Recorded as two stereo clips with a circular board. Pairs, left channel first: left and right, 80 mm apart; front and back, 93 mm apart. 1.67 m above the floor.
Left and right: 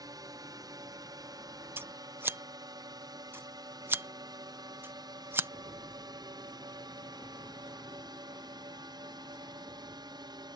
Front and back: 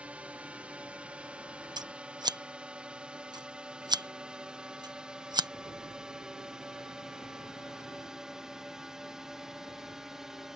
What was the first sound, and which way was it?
A drone, 105° right.